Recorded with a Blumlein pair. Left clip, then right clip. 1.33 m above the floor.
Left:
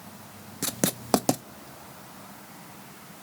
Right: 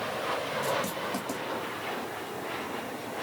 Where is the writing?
45° left, 0.5 m.